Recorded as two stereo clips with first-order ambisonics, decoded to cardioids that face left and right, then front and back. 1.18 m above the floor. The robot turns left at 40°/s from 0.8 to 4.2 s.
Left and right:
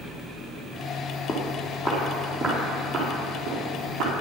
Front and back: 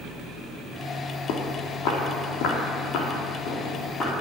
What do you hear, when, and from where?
1.3 s footsteps: 35° left, 2.5 m; by 4.1 s 60° right, 6 m